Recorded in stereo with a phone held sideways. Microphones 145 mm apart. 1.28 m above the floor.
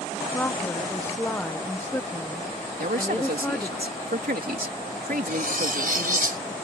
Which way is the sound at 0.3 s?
15° left (ahead or behind).